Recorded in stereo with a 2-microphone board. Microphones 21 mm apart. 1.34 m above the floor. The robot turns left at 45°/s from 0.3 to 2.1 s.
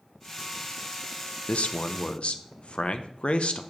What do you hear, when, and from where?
1.5 s a man speaking: 80° left, 0.7 m; by 3.6 s 65° left (ahead or behind), 0.7 m